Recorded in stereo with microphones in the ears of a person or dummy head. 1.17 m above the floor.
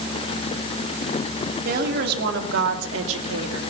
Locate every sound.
1.6 s a woman speaking: 50° right (ahead or behind), 2.5 m; by 3.6 s 80° right, 2 m